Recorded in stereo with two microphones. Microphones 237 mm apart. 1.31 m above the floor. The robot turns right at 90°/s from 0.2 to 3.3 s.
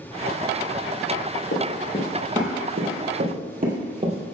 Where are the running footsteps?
55° left (ahead or behind), 2.5 m; by 4.3 s 25° right (ahead or behind), 2.5 m.